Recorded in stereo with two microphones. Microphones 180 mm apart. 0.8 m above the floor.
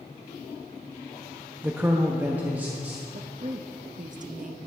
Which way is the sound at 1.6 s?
10° right (ahead or behind).